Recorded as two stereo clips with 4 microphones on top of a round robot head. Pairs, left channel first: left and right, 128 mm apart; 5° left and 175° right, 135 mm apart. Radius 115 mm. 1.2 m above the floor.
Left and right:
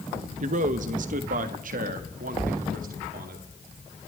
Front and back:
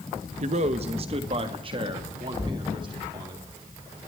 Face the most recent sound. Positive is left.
turn(degrees=-110)